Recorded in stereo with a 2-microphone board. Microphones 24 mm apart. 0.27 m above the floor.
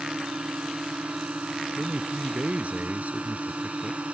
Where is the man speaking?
70° right (ahead or behind).